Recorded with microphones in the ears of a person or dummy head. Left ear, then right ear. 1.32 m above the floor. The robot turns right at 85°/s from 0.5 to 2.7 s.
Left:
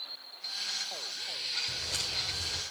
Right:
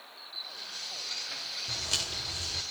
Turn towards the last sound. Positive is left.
turn(degrees=25)